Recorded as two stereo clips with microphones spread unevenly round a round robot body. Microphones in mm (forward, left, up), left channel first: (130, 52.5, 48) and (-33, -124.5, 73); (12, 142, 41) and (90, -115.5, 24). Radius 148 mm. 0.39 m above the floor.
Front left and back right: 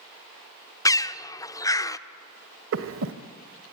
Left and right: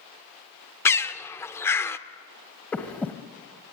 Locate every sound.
0.8 s a bird: 35° left, 0.8 m
2.7 s breathing: 170° right, 1.0 m